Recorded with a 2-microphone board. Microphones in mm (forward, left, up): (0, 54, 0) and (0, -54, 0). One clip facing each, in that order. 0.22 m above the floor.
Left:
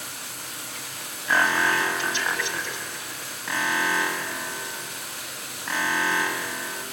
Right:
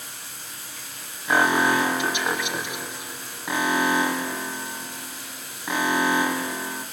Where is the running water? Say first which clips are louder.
Left 3 dB; 75° left (ahead or behind), 4 m.